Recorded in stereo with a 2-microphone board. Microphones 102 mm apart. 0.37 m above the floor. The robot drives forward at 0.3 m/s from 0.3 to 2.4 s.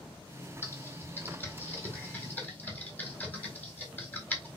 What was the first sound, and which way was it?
Typing on a keyboard, 25° left (ahead or behind).